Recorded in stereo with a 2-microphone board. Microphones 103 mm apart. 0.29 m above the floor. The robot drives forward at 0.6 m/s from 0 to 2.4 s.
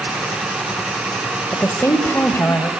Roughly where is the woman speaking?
Left.